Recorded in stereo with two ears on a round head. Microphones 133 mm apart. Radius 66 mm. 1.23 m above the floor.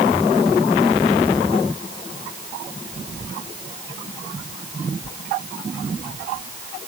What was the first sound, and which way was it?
Only background noise.